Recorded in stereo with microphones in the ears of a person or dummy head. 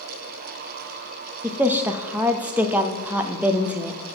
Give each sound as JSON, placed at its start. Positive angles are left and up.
{"t": 1.4, "sound": "a woman speaking", "side_deg": -15, "distance_m": 0.5}